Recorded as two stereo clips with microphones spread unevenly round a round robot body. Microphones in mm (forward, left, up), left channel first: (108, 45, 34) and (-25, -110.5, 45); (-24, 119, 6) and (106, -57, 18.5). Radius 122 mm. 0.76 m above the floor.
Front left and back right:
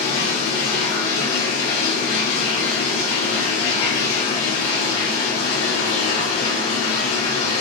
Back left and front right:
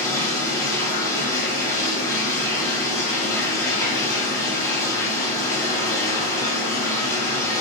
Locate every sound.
0.0 s running water: 50° left, 3 m